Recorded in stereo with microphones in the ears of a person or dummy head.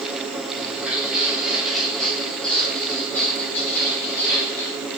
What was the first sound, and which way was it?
Footsteps, 10° right (ahead or behind).